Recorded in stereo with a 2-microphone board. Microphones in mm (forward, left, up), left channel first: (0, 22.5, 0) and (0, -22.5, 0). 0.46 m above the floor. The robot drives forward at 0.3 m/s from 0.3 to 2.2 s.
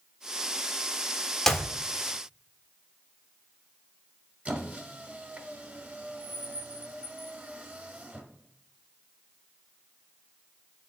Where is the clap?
5° left (ahead or behind), 0.7 m.